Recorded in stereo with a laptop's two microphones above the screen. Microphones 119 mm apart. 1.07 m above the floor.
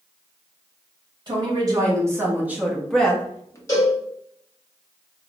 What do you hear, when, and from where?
1.3 s a woman speaking: 35° right (ahead or behind), 1.4 m; by 3.6 s 25° left (ahead or behind), 0.8 m
3.7 s a cowbell: 25° left (ahead or behind), 1.9 m